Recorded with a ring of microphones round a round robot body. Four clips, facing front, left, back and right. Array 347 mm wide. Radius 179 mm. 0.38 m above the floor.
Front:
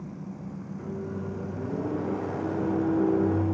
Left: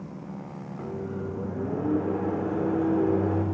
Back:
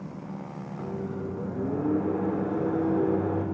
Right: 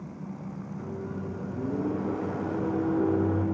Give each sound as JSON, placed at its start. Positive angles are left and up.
{"t": 0.8, "sound": "a microwave", "azimuth_deg": 140, "distance_m": 0.7}